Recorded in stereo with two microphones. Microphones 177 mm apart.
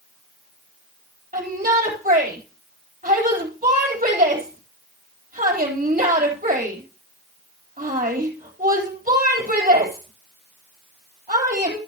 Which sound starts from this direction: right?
A shout, at 1.3 s.